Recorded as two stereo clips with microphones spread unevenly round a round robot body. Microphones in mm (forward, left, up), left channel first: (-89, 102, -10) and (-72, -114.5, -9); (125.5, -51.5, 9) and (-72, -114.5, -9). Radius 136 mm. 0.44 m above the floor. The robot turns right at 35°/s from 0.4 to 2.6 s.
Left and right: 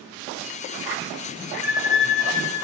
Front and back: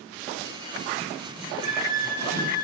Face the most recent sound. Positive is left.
turn(degrees=165)